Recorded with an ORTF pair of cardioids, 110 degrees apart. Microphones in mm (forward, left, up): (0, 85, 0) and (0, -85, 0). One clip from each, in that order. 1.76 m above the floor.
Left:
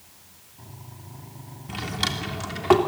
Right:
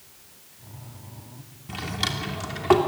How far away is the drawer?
About 3 m.